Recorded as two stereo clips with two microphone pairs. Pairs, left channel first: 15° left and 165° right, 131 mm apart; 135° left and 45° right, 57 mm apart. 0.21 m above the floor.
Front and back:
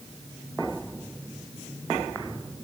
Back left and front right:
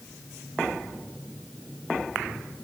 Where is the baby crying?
I don't hear a baby crying.